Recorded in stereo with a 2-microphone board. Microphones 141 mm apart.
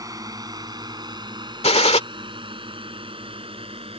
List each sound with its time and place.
0.0 s a drone: 25° right (ahead or behind); by 4.0 s 40° right (ahead or behind)
1.6 s a gunshot: 50° left (ahead or behind)